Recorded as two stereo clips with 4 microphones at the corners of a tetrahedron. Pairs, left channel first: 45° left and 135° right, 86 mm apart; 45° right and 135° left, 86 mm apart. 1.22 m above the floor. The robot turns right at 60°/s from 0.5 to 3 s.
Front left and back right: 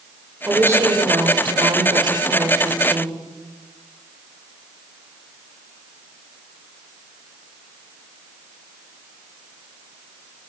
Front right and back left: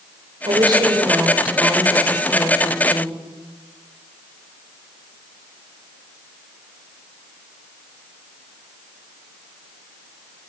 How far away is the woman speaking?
About 5.5 m.